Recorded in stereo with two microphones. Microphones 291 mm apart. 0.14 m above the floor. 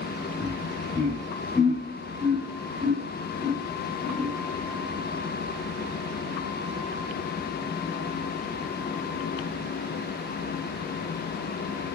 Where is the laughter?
30° left (ahead or behind), 1.6 m; by 4.3 s 60° right (ahead or behind), 2.5 m.